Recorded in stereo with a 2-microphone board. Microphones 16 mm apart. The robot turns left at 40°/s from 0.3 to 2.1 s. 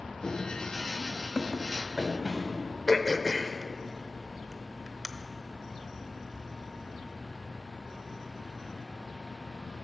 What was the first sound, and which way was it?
Running footsteps, 45° left (ahead or behind).